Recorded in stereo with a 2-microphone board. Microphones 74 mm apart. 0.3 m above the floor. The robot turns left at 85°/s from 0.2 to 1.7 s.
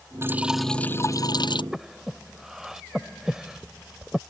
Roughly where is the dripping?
Behind right.